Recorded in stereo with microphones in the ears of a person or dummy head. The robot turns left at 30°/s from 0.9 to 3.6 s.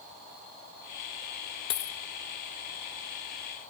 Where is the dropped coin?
25° left (ahead or behind), 1.0 m; by 2.0 s 20° left (ahead or behind), 1.0 m.